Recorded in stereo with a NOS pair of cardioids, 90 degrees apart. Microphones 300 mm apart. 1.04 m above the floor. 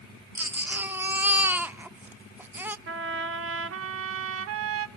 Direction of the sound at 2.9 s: 50° right.